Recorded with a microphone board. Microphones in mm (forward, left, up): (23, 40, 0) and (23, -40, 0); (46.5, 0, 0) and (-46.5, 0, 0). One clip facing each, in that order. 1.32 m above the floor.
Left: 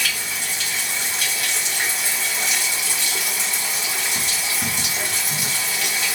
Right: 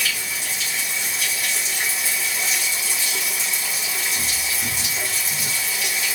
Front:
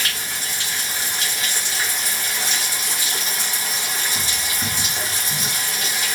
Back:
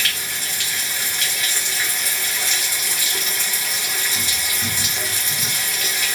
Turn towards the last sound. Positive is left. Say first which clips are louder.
# left 1 dB, even
turn(degrees=60)